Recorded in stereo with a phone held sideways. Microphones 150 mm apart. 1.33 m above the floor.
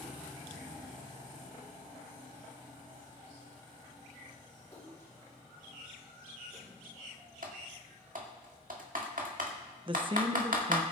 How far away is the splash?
About 5.5 m.